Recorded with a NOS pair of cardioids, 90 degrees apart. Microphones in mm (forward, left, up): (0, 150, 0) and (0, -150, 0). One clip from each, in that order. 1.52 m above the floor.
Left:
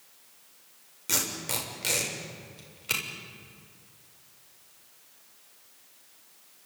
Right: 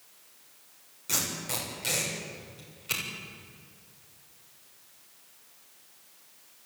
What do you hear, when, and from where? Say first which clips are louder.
1.1 s tape being pulled: left 1 dB; 30° left, 7 m